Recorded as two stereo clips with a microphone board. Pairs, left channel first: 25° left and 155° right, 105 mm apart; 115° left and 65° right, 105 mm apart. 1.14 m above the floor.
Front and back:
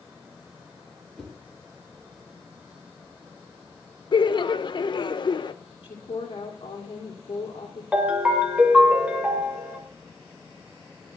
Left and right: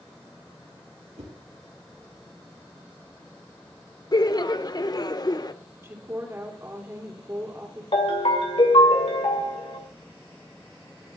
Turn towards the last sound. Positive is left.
turn(degrees=125)